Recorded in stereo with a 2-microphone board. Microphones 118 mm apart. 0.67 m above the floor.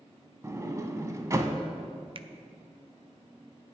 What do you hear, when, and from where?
0.4 s a sliding door: 30° right (ahead or behind), 0.9 m
2.1 s a finger snap: 45° right (ahead or behind), 0.6 m